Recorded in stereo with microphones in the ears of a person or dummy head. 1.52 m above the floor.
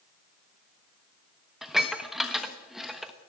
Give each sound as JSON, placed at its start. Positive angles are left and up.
{"t": 1.6, "sound": "dishes clattering", "side_deg": -5, "distance_m": 1.3}